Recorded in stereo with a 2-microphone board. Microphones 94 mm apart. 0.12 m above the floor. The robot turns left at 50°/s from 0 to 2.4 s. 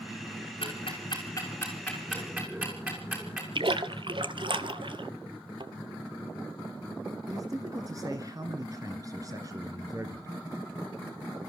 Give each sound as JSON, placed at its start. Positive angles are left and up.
{"t": 0.6, "sound": "ticking", "side_deg": 70, "distance_m": 6.5}
{"t": 3.5, "sound": "a splash", "side_deg": -60, "distance_m": 1.2}
{"t": 5.6, "sound": "a thud", "side_deg": -60, "distance_m": 1.1}
{"t": 7.3, "sound": "a man speaking", "side_deg": -40, "distance_m": 2.0}